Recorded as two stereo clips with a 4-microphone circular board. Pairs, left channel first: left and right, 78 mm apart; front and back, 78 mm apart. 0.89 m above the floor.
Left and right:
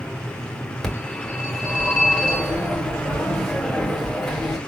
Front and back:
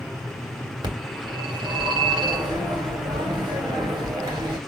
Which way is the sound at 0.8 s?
175° left.